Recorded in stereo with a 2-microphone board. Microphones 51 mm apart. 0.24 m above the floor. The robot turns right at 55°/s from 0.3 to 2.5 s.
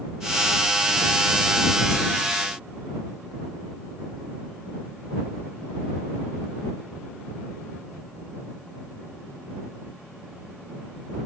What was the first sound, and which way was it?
Only background noise.